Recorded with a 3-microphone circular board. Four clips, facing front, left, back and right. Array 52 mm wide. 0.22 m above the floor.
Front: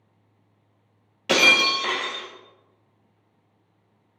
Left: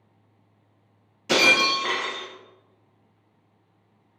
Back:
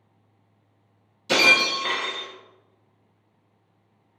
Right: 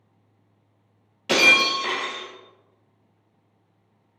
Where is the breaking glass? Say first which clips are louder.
Right 2 dB, front 1 dB; 25° right, 1.2 m.